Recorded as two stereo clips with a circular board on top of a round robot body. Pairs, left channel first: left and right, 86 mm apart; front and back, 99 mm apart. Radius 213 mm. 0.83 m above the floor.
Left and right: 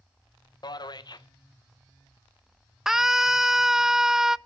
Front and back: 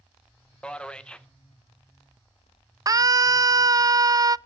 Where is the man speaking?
80° left, 1.2 m.